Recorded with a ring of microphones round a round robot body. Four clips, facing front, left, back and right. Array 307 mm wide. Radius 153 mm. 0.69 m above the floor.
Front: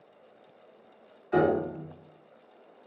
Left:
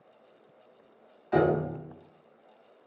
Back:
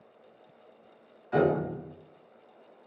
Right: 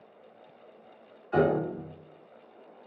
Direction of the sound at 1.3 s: 90° left.